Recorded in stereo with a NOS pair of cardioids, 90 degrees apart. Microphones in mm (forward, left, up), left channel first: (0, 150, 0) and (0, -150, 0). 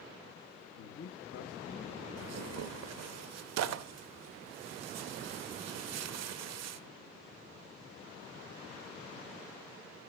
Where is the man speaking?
60° left, 1.2 m; by 2.0 s 20° left, 1.2 m.